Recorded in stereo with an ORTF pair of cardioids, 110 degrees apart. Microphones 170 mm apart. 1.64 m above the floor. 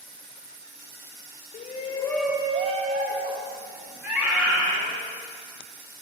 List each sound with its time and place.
1.5 s a shout: 55° left, 0.7 m; by 5.0 s 75° right, 2.5 m
4.0 s a scream: 10° right, 2 m